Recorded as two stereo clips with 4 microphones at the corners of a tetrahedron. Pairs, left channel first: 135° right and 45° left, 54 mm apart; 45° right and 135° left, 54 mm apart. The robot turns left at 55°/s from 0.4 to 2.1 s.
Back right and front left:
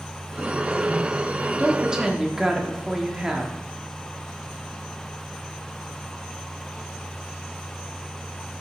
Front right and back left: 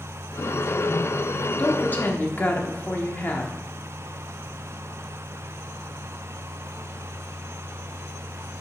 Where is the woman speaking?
Straight ahead, 1.0 m; by 3.5 s 30° right, 1.0 m.